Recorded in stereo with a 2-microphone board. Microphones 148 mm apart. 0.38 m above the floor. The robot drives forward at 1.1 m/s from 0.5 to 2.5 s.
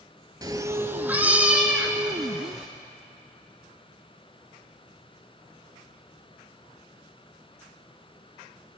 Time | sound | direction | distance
0.4 | a cat meowing | 25° right (ahead or behind) | 0.5 m